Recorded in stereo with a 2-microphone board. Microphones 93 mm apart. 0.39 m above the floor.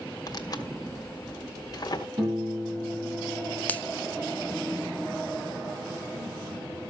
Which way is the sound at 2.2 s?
35° right (ahead or behind).